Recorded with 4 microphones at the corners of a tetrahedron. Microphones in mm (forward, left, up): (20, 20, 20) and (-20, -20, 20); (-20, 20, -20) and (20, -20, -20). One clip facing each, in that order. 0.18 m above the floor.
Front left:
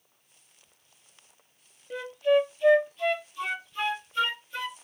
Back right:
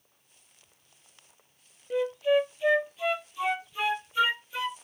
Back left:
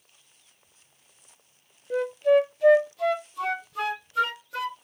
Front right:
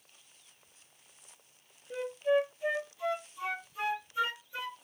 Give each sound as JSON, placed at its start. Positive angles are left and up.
{"t": 1.9, "sound": "a flute", "azimuth_deg": 140, "distance_m": 1.1}